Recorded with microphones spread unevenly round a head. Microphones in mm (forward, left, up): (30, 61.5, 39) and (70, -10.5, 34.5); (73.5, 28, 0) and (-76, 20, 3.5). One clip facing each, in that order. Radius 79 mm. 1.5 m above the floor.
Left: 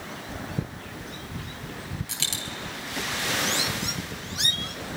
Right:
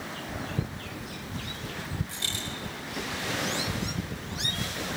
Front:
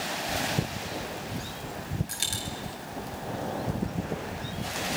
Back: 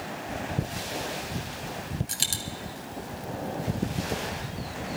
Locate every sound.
2.1 s a dropped coin: 135° left, 3 m